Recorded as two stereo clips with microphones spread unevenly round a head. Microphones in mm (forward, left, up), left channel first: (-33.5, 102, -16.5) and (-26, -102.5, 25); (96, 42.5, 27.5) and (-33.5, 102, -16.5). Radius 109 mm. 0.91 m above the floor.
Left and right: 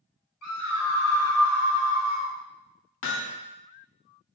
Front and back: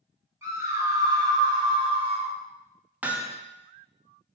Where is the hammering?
80° left, 1.4 m.